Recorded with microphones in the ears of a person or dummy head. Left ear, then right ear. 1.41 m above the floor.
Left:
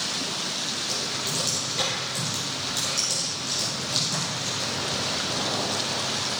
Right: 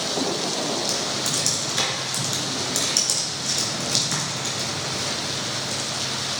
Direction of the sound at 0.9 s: 60° right (ahead or behind).